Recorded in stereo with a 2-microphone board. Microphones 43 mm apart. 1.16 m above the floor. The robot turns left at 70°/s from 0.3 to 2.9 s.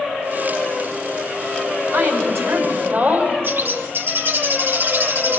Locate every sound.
1.9 s a woman speaking: 75° right, 5.5 m; by 3.3 s 140° right, 5.5 m
3.4 s a bird: 55° right (ahead or behind), 1.4 m